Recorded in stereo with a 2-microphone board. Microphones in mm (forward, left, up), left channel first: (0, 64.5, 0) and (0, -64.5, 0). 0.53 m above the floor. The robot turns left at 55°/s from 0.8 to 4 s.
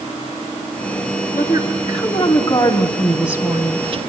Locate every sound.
1.3 s a woman speaking: 95° left, 3.5 m; by 4.0 s 50° right, 3.5 m